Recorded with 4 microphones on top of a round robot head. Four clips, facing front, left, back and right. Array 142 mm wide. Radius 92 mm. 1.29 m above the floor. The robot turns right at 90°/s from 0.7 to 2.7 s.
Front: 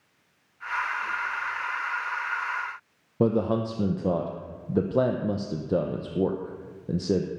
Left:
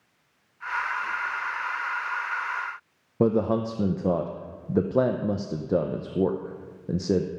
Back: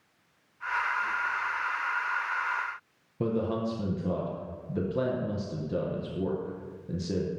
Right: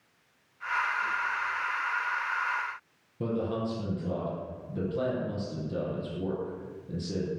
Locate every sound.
3.2 s a man speaking: 55° left, 0.9 m